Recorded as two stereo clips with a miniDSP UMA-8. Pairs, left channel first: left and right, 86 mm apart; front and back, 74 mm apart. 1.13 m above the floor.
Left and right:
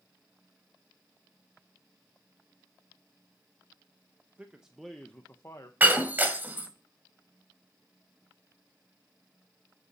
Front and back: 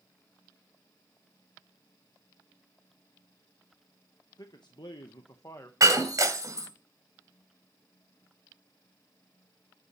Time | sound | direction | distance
4.4 | a man speaking | 20° right | 1.0 m
5.8 | breaking glass | 155° right | 1.5 m